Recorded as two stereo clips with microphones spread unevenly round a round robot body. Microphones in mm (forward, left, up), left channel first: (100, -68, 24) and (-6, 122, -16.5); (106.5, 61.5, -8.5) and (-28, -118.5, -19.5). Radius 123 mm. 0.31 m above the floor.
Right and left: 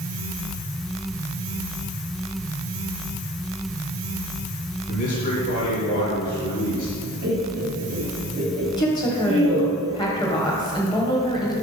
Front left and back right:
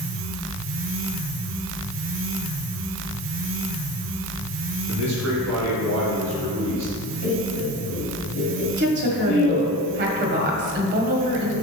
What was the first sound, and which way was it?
A man speaking, 120° right.